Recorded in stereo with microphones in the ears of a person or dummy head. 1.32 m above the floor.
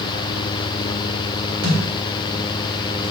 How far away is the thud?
About 2.0 m.